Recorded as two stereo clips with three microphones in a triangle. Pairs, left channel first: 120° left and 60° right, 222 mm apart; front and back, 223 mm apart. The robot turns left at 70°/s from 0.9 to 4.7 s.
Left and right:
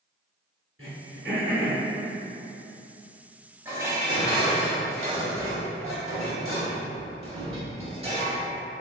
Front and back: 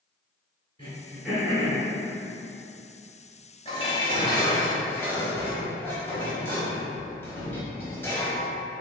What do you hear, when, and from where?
0.8 s throat clearing: 65° right, 1.9 m; by 1.8 s 130° right, 1.9 m
3.6 s dishes clattering: 10° left, 0.8 m; by 8.4 s 65° right, 0.8 m